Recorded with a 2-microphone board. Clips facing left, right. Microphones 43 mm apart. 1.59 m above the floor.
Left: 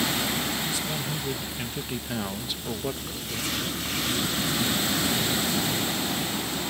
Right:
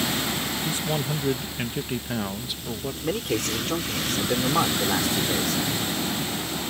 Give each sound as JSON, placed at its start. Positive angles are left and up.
{"t": 0.6, "sound": "a man speaking", "side_deg": -45}
{"t": 3.0, "sound": "a man speaking", "side_deg": -65}